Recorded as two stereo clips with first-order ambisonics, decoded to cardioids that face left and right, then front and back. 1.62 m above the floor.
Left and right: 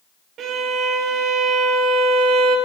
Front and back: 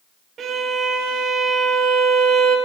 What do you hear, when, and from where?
0.4 s a violin: 130° right, 0.6 m